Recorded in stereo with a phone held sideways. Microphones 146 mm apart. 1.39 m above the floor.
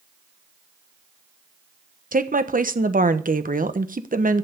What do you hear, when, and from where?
2.1 s a woman speaking: 85° right, 1.1 m